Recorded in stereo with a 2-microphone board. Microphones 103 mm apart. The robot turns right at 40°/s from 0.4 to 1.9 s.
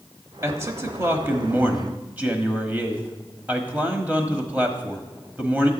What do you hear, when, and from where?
0.4 s a man speaking: 25° right (ahead or behind), 1.0 m; by 5.7 s 15° right (ahead or behind), 1.0 m